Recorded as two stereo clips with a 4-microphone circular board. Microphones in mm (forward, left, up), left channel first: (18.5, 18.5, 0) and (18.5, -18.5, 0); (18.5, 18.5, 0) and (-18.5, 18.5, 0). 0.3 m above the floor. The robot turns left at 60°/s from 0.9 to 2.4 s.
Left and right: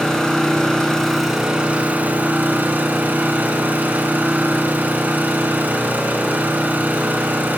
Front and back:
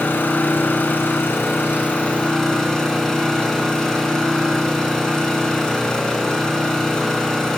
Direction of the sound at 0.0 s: 20° left.